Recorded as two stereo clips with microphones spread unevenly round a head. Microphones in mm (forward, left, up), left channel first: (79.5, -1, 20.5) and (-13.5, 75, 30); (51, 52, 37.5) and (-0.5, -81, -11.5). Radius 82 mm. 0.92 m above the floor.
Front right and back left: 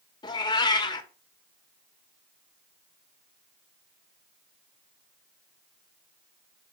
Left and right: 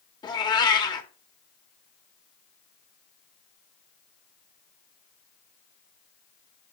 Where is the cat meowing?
15° left, 1.2 m.